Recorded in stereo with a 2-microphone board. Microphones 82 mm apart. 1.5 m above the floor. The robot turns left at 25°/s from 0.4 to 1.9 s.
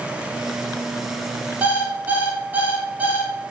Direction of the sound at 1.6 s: 20° right (ahead or behind).